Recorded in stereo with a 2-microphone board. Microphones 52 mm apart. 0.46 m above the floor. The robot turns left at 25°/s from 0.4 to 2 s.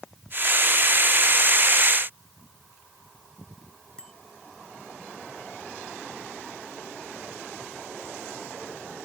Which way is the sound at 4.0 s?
15° left (ahead or behind).